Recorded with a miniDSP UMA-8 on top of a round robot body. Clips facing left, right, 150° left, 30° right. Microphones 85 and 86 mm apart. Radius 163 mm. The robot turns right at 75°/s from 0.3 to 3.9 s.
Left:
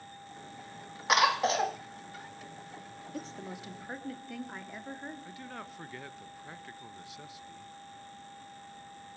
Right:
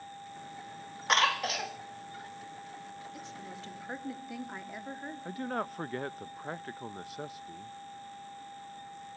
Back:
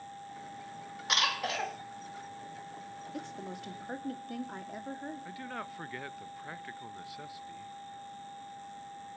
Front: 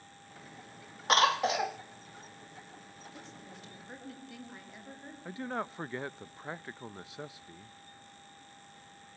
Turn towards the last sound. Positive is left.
turn(degrees=-85)